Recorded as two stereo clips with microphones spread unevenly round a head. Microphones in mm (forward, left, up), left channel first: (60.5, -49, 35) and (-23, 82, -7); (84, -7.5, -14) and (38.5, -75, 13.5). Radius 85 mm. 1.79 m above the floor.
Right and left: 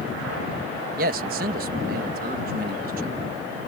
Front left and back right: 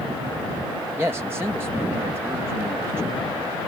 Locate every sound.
1.0 s a man speaking: 165° left